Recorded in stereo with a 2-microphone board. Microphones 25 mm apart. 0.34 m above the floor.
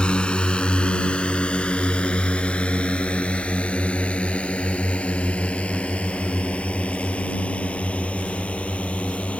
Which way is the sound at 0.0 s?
40° left (ahead or behind).